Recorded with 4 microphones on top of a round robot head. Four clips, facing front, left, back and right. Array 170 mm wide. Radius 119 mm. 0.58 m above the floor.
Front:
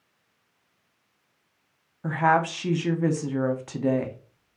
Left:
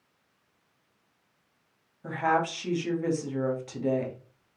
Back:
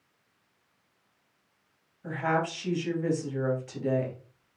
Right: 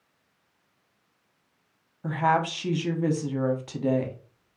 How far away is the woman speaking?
About 0.9 m.